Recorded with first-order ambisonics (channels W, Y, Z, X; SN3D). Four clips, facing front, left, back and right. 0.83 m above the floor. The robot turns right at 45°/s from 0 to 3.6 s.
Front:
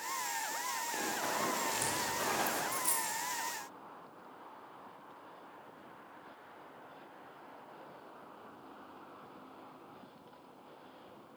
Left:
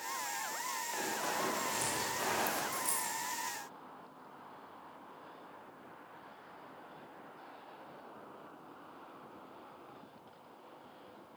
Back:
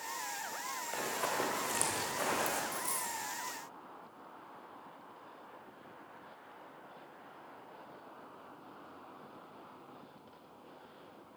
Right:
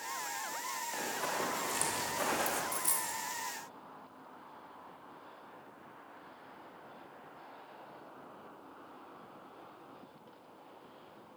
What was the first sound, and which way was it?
Running footsteps, 175° left.